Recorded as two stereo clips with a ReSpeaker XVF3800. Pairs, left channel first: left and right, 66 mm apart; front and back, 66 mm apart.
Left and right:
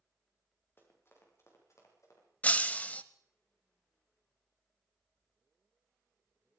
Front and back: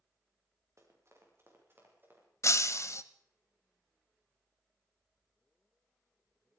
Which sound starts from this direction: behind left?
Running footsteps, at 0.8 s.